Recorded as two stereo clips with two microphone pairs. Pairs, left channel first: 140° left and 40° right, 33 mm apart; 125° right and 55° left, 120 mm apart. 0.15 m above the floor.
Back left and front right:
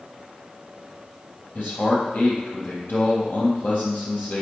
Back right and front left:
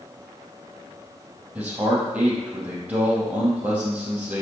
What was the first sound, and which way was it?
A man speaking, 135° left.